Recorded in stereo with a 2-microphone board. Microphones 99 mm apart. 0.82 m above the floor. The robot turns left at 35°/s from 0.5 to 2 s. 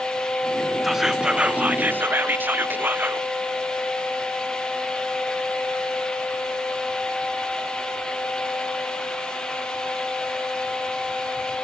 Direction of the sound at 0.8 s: 5° right (ahead or behind).